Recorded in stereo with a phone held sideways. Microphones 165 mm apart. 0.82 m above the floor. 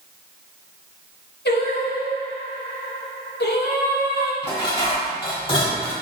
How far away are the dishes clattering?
About 1.0 m.